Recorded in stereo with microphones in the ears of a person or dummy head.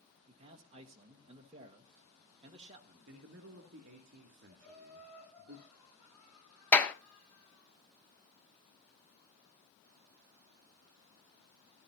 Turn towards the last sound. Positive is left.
turn(degrees=15)  # may be behind; listen again after turning